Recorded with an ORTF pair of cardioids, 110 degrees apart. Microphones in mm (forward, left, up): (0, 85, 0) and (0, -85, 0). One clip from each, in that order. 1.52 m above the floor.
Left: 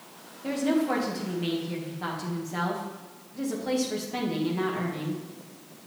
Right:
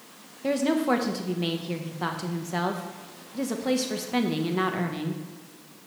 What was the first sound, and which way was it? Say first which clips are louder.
A woman speaking: right 2 dB; 35° right.